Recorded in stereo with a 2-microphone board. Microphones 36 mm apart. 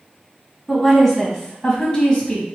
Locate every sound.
0.7 s a woman speaking: 5° left (ahead or behind), 1.6 m; by 2.5 s 30° left (ahead or behind), 1.4 m